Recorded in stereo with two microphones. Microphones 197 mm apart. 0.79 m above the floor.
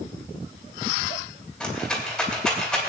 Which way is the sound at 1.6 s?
Centre (ahead or behind).